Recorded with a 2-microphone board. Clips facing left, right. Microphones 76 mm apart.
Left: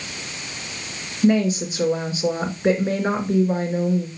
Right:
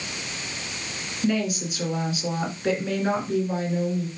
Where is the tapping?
No tapping in this recording.